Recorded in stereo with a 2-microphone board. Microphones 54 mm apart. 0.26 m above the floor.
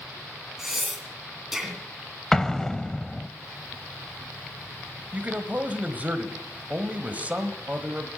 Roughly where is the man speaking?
Right.